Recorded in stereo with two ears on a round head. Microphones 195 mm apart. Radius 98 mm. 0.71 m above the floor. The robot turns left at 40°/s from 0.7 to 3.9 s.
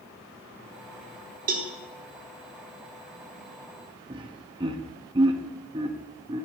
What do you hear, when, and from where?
1.5 s a cowbell: 40° right (ahead or behind), 1.6 m; by 1.7 s 35° right (ahead or behind), 1.6 m
4.1 s laughter: 20° right (ahead or behind), 0.9 m